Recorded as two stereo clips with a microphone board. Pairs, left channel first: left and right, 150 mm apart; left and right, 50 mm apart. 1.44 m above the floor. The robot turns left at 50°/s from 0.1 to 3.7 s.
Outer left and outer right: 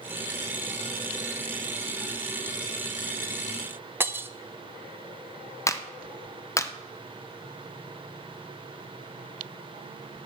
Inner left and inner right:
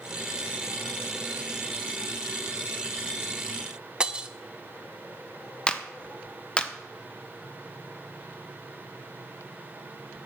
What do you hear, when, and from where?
4.0 s breaking glass: 15° right (ahead or behind), 0.5 m
5.7 s a clap: 20° left (ahead or behind), 0.6 m